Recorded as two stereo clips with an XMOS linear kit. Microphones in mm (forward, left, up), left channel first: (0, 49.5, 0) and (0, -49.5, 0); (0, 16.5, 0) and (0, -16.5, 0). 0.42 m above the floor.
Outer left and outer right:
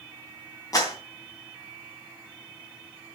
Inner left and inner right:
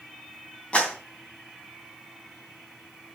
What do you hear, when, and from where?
0.7 s a clap: 40° left (ahead or behind), 2.5 m